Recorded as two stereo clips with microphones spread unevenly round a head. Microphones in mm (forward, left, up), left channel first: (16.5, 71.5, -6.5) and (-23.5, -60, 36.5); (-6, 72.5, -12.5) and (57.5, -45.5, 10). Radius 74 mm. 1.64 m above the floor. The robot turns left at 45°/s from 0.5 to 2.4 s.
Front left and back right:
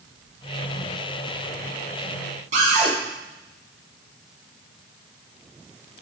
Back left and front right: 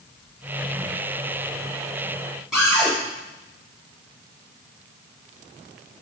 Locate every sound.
2.5 s a cupboard door: 145° right, 4.5 m